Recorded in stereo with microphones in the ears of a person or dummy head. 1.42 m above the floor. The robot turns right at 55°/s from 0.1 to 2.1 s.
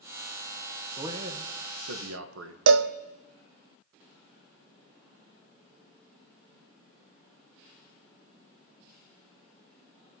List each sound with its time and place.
1.0 s a man speaking: 155° right, 1.1 m; by 2.6 s 90° right, 1.1 m
2.7 s a cowbell: 80° right, 0.5 m